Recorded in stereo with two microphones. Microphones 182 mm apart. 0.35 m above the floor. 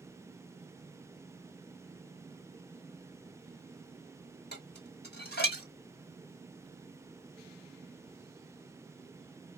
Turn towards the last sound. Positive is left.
turn(degrees=65)  # may be behind; listen again after turning